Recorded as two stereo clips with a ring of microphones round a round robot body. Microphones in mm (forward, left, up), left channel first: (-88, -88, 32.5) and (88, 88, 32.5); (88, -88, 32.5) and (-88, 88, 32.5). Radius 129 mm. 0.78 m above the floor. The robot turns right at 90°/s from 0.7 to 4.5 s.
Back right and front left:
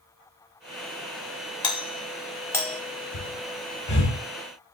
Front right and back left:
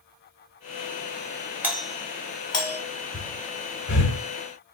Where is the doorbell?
155° right, 1.2 m; by 2.8 s 50° right, 1.2 m.